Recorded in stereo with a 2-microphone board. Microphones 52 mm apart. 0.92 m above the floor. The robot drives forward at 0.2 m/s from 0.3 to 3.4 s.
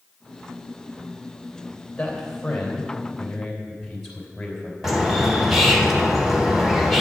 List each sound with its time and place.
2.0 s a man speaking: 5° left (ahead or behind), 3 m
4.8 s a bird: 5° right (ahead or behind), 1.2 m